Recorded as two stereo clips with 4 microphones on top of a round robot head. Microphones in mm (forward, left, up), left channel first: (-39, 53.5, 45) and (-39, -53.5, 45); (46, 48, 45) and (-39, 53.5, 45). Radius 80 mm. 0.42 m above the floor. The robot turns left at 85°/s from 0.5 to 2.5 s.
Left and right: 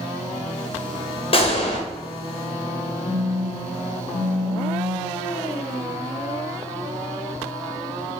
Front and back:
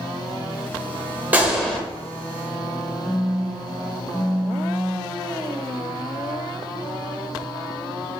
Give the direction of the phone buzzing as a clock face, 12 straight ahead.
7 o'clock.